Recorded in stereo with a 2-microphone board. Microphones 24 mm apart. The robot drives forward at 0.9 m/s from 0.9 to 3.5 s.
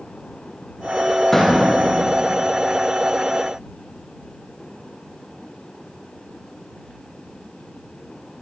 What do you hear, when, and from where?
1.3 s a door slam: 15° left (ahead or behind), 9.5 m; by 1.6 s 10° left (ahead or behind), 9.5 m